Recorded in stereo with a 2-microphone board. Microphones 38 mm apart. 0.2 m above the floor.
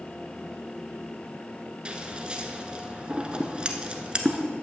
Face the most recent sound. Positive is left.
turn(degrees=-25)  # may be behind; listen again after turning